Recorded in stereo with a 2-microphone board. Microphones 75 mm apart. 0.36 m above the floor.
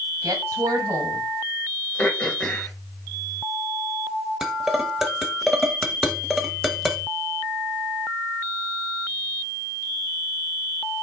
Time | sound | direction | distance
0.2 | a woman speaking | 50° right (ahead or behind) | 1.7 m
2.0 | throat clearing | 20° left (ahead or behind) | 1.2 m
4.4 | dishes clattering | 5° right (ahead or behind) | 1.0 m